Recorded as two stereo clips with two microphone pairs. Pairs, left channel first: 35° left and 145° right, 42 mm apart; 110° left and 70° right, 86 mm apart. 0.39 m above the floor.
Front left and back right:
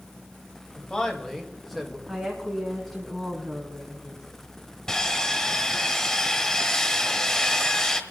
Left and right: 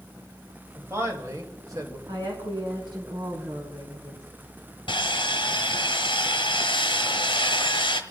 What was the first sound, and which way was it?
A man speaking, 20° right.